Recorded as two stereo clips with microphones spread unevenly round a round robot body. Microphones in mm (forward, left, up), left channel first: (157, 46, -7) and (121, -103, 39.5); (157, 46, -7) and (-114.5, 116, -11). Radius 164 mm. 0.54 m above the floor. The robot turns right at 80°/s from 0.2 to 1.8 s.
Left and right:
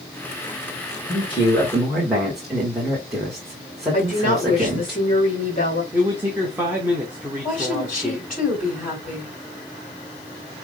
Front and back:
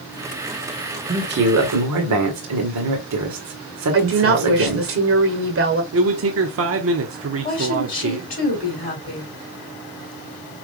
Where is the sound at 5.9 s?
160° left, 0.8 m.